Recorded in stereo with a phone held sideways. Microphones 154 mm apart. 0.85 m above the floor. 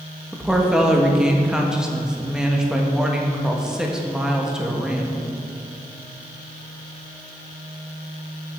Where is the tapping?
I don't hear tapping.